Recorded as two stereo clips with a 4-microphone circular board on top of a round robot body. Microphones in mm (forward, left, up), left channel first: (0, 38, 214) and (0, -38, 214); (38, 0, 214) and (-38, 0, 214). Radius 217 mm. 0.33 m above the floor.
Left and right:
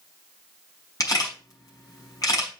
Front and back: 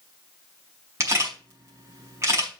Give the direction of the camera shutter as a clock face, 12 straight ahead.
8 o'clock.